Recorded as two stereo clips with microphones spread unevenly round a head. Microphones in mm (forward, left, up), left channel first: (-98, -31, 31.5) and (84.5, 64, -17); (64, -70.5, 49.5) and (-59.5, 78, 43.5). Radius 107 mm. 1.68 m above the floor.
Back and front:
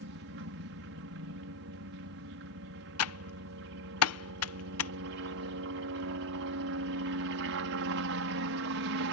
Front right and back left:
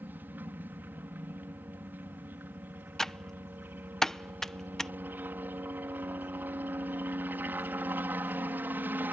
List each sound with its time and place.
0.0 s a helicopter: 50° left
3.0 s typing on a keyboard: 140° right